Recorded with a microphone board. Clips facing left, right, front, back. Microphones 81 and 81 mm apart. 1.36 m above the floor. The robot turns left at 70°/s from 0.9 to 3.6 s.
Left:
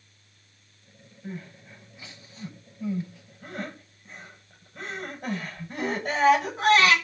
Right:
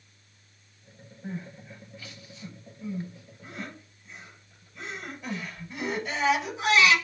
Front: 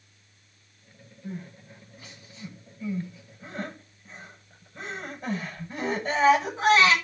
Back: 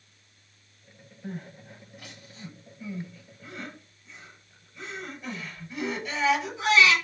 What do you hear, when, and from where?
1.2 s crying: 145° right, 9.5 m; by 7.0 s 50° left, 9.5 m